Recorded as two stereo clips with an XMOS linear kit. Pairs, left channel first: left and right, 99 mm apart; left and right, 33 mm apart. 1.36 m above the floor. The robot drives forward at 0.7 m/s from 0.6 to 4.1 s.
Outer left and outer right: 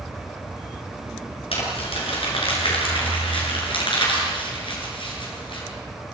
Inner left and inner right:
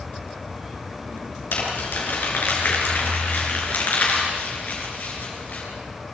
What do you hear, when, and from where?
1.5 s crumpling: 75° left (ahead or behind), 6.5 m; by 5.6 s 60° left (ahead or behind), 7 m